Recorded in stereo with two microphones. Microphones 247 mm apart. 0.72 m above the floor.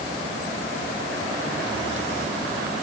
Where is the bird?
I don't hear a bird.